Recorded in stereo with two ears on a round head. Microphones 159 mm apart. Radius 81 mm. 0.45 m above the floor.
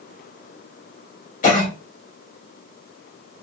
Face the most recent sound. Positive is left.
turn(degrees=45)  # may be behind; listen again after turning